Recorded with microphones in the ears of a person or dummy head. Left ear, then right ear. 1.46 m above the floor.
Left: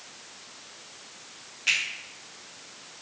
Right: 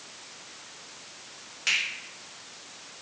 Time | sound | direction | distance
1.7 | a finger snap | 40° right (ahead or behind) | 2.5 m